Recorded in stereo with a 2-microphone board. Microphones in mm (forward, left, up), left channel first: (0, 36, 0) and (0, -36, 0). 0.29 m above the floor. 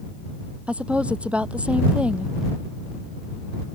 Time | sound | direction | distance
0.7 | a woman speaking | 15° right (ahead or behind) | ?